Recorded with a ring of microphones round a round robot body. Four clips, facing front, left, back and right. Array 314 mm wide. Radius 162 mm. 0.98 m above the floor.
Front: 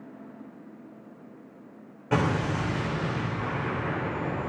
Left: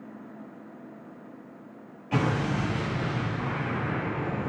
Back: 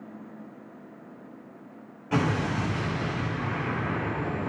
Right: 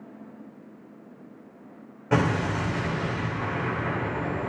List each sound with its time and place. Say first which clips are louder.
2.1 s an explosion: right 3 dB, even; 65° right, 3.5 m